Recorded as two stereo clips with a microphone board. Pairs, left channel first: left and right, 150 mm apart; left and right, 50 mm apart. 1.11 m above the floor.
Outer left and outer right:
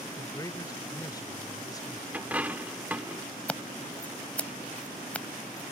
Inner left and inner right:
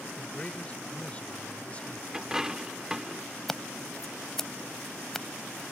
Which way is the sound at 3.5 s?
10° left (ahead or behind).